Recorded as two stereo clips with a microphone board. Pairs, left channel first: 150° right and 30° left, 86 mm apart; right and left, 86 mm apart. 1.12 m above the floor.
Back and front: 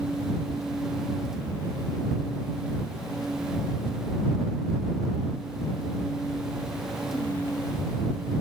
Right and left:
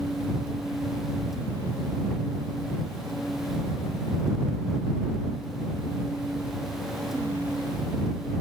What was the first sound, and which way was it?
Only background noise.